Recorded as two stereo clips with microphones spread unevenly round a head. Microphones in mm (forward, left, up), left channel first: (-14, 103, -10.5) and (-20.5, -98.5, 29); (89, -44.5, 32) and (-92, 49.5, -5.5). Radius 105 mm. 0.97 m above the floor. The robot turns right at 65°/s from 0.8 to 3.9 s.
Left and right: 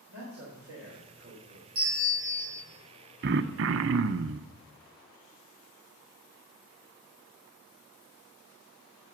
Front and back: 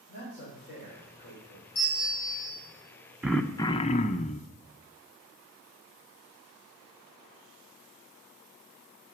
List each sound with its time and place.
0.1 s a man speaking: 75° right, 3.5 m; by 1.6 s 20° right, 3.5 m
1.8 s a bell: 50° right, 4 m; by 2.6 s 5° left, 4 m
3.2 s throat clearing: 130° right, 0.6 m; by 4.5 s 85° right, 0.6 m